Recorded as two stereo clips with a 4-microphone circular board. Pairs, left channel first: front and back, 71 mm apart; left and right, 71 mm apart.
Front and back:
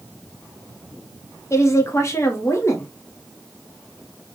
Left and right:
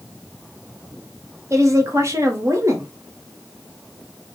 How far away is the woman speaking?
About 0.9 m.